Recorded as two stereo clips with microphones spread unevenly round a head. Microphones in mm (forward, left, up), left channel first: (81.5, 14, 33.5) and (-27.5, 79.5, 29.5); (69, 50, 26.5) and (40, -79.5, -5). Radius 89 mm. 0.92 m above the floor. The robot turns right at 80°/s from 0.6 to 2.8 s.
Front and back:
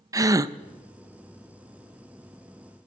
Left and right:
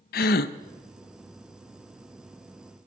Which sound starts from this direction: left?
A gasp, at 0.1 s.